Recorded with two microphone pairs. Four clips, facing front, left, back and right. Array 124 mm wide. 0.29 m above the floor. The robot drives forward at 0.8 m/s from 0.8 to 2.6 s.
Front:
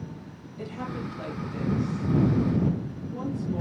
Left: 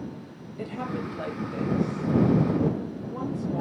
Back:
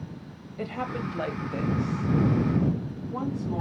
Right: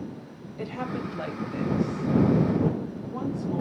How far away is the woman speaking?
About 1.2 m.